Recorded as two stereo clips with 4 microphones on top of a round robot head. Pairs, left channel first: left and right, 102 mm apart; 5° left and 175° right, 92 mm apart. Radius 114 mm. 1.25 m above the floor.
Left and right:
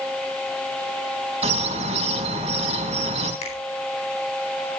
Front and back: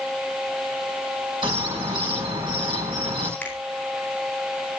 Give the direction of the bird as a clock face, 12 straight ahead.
4 o'clock.